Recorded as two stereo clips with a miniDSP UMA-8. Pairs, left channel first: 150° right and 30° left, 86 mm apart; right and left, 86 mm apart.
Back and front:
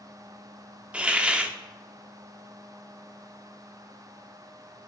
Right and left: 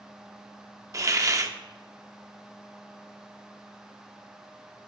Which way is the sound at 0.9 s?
95° left.